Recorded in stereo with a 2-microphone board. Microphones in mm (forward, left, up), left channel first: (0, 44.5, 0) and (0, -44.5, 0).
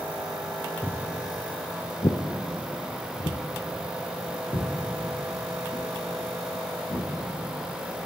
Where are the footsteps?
15° left (ahead or behind), 0.9 m; by 8.1 s 45° left (ahead or behind), 3 m.